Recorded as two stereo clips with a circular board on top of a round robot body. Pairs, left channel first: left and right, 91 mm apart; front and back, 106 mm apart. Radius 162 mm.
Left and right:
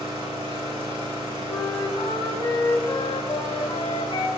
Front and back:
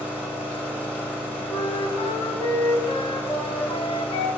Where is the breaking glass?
No breaking glass in this recording.